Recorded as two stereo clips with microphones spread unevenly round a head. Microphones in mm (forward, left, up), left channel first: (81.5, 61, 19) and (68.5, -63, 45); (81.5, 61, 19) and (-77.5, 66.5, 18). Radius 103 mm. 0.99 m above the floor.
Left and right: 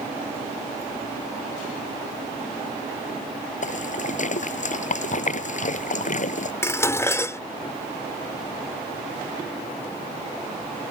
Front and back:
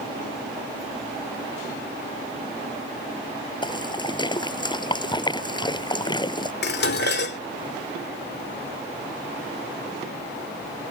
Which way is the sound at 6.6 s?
15° left.